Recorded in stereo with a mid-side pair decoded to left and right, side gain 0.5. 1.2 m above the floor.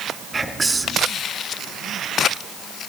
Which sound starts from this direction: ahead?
Whispering, at 0.3 s.